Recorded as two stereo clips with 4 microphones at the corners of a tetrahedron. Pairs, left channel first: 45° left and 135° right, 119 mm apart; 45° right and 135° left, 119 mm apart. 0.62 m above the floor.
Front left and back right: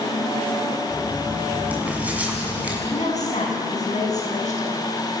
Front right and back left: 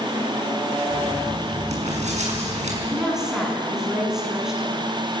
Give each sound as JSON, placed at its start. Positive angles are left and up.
{"t": 0.9, "sound": "writing", "azimuth_deg": 145, "distance_m": 6.0}
{"t": 2.9, "sound": "a woman speaking", "azimuth_deg": 50, "distance_m": 7.0}